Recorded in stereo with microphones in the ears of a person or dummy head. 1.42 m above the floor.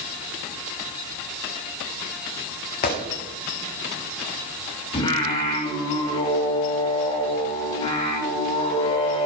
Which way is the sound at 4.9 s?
20° left (ahead or behind).